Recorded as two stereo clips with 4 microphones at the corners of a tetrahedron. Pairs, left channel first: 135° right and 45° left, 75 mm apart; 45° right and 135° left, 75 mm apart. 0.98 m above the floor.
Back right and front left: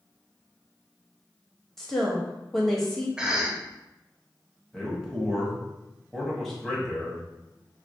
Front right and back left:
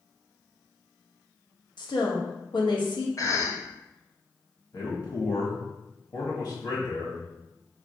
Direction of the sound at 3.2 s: 35° right.